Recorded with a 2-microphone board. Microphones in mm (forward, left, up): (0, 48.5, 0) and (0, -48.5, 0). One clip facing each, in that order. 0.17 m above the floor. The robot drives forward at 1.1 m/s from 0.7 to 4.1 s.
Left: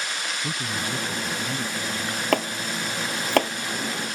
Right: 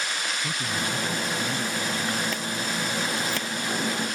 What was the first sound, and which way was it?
A man speaking, 25° left (ahead or behind).